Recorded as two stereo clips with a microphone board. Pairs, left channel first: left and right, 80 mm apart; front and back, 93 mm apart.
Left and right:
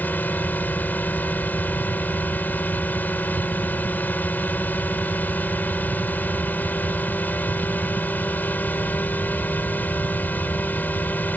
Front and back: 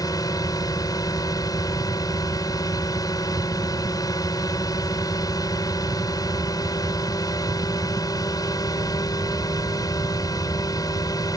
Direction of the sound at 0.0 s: 30° left.